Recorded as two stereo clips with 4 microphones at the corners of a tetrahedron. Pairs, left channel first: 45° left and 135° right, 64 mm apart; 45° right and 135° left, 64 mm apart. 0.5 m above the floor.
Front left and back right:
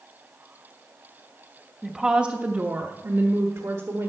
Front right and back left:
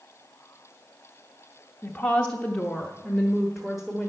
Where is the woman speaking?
45° right, 0.8 m; by 4.1 s 140° right, 1.4 m.